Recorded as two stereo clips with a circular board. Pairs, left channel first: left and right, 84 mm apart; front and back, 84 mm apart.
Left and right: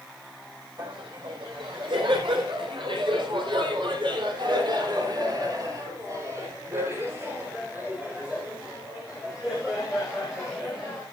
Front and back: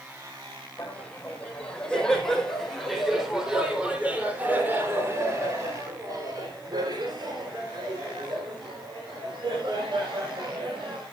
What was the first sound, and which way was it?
Laughter, 70° right.